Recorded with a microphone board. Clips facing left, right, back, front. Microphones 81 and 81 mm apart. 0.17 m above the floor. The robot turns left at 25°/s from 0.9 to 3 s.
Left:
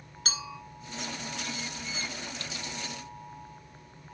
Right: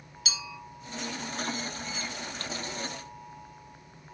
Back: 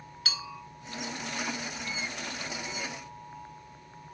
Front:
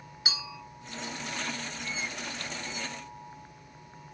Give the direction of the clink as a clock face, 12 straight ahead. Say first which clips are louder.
Left 2 dB, even; 10 o'clock.